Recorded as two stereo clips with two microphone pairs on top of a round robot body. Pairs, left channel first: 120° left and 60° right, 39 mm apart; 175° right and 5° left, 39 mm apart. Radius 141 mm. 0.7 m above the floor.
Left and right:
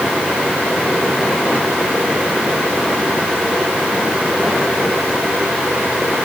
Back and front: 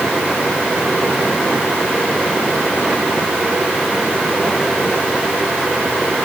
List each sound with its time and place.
Only background noise.